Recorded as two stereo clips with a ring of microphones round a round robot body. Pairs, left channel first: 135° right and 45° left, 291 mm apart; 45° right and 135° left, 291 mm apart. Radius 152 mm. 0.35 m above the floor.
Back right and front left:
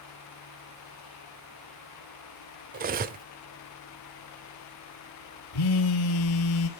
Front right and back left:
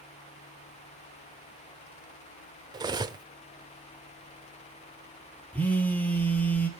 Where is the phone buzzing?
130° right, 1.5 m.